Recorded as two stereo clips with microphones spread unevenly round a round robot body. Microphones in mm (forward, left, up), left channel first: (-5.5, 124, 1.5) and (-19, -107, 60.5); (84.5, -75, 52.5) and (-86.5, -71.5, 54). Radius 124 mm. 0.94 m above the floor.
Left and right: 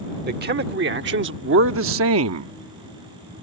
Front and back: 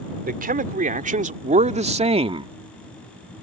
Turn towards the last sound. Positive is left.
turn(degrees=-120)